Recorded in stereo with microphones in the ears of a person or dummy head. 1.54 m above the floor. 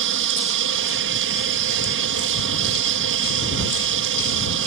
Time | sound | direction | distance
0.0 | an aircraft | 65° right (ahead or behind) | ?